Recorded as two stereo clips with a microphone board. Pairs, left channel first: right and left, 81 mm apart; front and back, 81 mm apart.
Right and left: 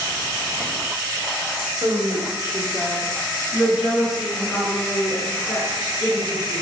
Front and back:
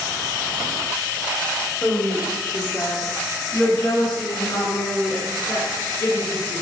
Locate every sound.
1.8 s a woman speaking: 70° left, 1.6 m; by 6.6 s 15° right, 3 m